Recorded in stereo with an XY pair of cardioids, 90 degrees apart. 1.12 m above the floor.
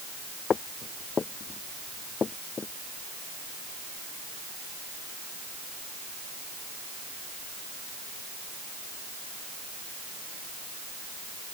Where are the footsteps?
45° left; by 2.7 s 40° left.